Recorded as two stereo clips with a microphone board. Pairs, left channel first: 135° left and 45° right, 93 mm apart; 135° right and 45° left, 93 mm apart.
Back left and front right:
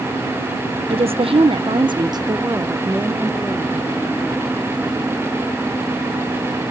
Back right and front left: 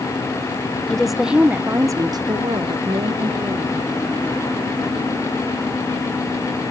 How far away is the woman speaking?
About 1.1 m.